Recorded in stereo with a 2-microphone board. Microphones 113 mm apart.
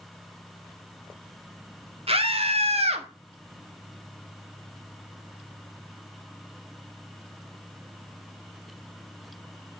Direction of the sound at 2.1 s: 55° right (ahead or behind).